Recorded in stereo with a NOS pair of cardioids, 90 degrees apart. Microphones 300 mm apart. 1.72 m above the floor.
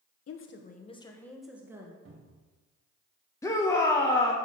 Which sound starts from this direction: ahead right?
A cupboard door, at 2.0 s.